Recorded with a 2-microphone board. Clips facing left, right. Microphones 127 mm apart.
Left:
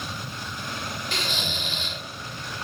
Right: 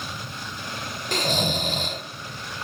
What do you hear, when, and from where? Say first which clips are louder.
1.1 s snoring: right 11 dB; 45° right (ahead or behind), 0.6 m